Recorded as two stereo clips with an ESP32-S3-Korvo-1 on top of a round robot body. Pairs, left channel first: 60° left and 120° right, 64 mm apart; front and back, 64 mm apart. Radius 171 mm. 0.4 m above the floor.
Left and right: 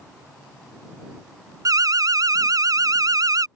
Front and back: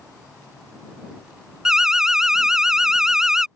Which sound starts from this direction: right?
An alarm, at 1.6 s.